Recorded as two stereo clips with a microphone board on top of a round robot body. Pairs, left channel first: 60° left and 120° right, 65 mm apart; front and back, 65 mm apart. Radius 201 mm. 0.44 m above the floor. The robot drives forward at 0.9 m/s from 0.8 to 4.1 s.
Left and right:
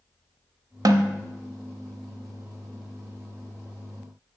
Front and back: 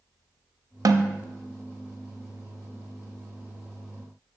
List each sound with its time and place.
0.8 s a snare drum: 145° right, 0.5 m; by 1.2 s 155° right, 0.8 m